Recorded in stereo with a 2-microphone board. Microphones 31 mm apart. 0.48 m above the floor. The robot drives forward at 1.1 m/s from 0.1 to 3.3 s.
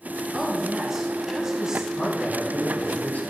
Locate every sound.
0.3 s a woman speaking: 10° right (ahead or behind), 4 m; by 1.9 s 20° right (ahead or behind), 2 m
2.0 s a man speaking: 50° left (ahead or behind), 5 m; by 3.3 s 65° left (ahead or behind), 4.5 m